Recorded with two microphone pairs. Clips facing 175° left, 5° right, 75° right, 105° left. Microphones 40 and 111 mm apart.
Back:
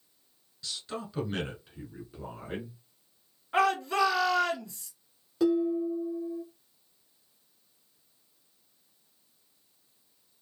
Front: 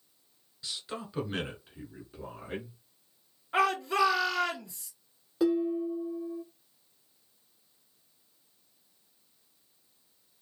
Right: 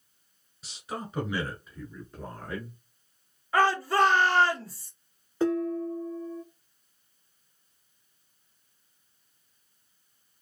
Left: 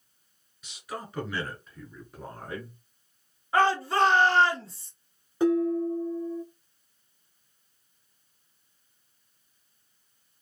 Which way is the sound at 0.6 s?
75° right.